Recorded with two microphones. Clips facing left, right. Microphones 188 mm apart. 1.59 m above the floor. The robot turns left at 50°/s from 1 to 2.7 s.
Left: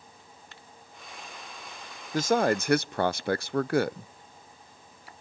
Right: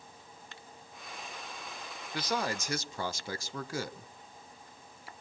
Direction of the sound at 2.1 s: 40° left (ahead or behind).